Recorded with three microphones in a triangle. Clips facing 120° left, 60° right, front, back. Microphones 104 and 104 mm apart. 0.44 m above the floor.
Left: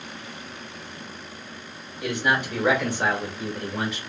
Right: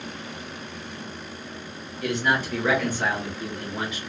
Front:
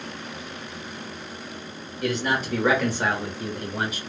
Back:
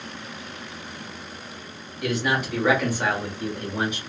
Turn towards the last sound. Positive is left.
turn(degrees=90)